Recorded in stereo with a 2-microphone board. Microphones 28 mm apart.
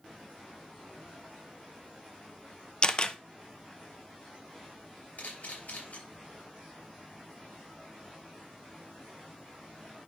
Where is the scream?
I don't hear a scream.